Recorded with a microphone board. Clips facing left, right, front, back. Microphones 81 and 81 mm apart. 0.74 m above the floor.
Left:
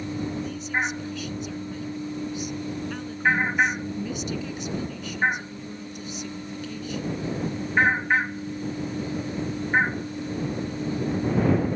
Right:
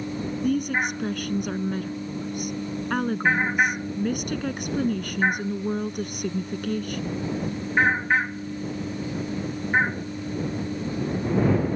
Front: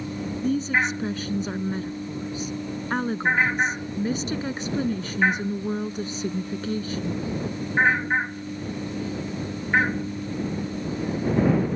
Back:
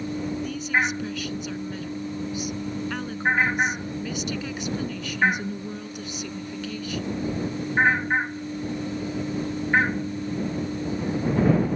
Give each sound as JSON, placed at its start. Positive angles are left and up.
{"t": 0.4, "sound": "a woman speaking", "azimuth_deg": -55}